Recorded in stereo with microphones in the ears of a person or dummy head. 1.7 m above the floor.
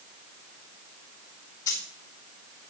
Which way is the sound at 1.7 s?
20° left (ahead or behind).